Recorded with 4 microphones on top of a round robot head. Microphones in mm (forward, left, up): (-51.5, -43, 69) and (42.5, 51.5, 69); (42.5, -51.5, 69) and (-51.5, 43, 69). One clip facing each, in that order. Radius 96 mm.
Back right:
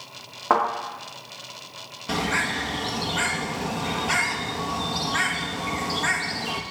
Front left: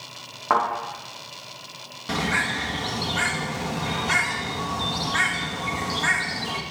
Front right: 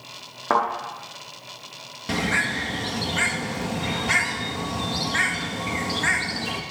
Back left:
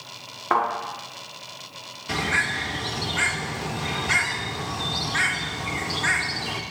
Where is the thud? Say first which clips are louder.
Back right 1 dB, front right 1 dB; 65° right, 4.5 m.